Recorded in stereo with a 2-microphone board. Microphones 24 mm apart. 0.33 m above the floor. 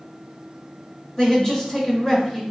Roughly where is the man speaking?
Left.